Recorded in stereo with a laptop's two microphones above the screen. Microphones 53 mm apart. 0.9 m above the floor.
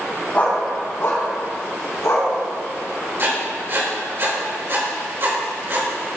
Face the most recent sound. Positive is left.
turn(degrees=-50)  # may be behind; listen again after turning